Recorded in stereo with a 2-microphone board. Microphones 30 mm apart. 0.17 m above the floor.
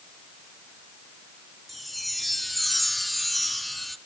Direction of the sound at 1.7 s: 5° left (ahead or behind).